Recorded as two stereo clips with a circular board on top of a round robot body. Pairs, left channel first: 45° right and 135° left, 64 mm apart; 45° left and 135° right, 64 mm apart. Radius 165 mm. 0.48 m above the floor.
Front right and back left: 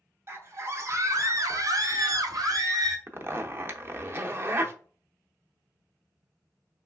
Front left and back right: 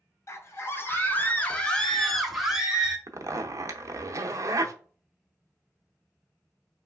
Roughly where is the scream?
Left.